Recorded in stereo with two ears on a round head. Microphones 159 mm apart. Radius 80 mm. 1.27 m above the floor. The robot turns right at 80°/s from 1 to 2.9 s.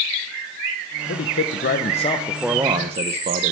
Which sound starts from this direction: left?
A man speaking, at 1.1 s.